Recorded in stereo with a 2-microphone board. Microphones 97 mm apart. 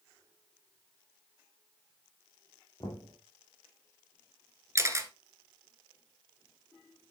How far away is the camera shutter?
About 1.3 m.